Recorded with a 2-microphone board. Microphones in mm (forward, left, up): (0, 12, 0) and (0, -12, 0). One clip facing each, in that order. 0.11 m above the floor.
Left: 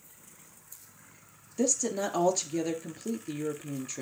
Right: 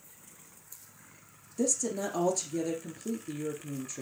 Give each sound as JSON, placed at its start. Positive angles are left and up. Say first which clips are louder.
{"t": 1.6, "sound": "a woman speaking", "louder": "left 2 dB", "side_deg": 25, "distance_m": 1.6}